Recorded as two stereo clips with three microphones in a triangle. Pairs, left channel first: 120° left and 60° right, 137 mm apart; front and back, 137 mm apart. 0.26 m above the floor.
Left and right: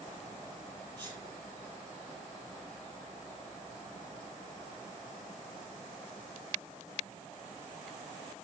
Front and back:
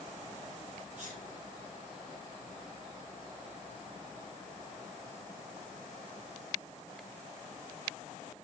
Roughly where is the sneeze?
Behind.